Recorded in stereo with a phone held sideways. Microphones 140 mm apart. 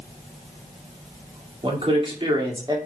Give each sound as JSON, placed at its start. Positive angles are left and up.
{"t": 1.6, "sound": "a man speaking", "side_deg": -40, "distance_m": 1.9}